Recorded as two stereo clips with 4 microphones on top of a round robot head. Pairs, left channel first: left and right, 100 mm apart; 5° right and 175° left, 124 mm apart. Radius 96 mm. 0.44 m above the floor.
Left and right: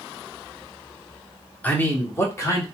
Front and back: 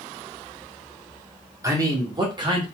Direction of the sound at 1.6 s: 145° left.